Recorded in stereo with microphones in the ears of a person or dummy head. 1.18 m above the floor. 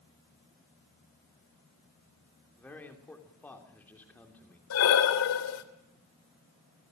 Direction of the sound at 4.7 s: 80° left.